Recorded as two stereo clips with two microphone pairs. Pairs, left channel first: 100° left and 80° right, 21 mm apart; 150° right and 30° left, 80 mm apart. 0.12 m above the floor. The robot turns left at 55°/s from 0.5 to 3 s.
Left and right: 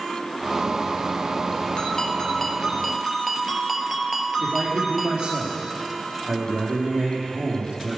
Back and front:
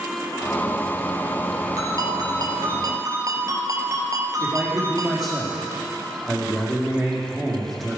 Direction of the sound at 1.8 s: 65° left.